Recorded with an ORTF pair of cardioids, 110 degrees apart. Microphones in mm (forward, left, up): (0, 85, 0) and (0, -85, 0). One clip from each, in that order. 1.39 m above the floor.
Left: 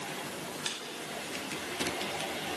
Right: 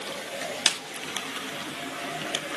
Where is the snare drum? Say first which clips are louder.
Right 13 dB; 65° right, 1.0 m.